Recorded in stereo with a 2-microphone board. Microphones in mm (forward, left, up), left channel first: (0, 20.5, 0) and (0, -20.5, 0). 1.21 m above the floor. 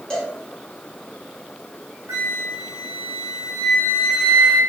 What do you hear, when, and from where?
0.1 s a cowbell: 20° left (ahead or behind), 1.6 m
2.1 s a flute: 75° right (ahead or behind), 1.0 m